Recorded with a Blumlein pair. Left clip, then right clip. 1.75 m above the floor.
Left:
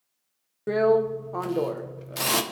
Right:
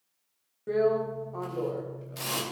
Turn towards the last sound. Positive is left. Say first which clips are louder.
# left 5 dB
turn(degrees=25)